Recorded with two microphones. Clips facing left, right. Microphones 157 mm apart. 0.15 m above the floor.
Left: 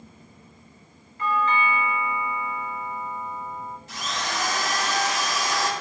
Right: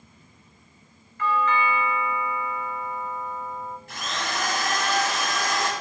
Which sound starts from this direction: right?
A drill, at 3.9 s.